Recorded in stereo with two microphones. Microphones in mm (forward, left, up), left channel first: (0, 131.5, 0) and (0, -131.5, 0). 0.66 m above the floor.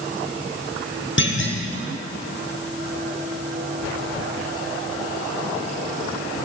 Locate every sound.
1.2 s a clunk: 45° left (ahead or behind), 0.7 m